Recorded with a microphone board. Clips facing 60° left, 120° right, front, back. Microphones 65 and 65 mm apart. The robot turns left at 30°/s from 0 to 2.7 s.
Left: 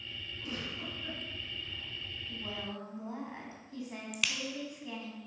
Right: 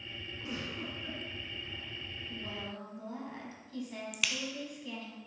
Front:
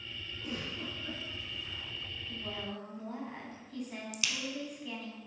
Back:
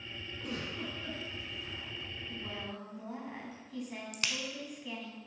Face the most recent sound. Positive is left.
turn(degrees=150)